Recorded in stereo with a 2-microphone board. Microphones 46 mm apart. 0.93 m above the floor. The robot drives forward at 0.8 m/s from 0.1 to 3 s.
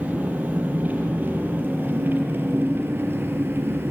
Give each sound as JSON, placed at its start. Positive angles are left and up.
{"t": 0.0, "sound": "an engine running", "side_deg": -35, "distance_m": 6.5}